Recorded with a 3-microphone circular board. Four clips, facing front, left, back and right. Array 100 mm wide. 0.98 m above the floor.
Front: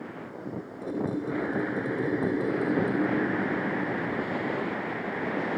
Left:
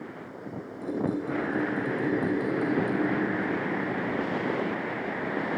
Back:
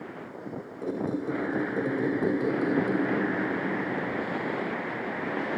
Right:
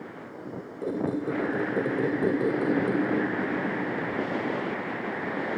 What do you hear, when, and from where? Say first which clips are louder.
0.8 s a squeak: right 1 dB, back 1 dB; 110° right, 3.5 m